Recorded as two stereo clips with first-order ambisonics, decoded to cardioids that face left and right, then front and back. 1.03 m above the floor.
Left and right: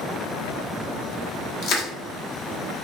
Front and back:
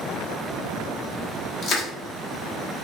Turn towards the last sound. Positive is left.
turn(degrees=55)